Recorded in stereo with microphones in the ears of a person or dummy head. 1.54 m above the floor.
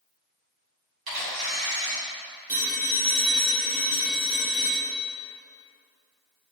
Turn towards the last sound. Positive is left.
turn(degrees=-25)  # may be behind; listen again after turning